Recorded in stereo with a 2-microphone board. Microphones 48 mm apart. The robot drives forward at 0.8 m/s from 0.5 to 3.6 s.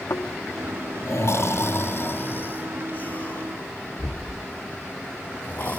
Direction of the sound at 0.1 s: 85° left.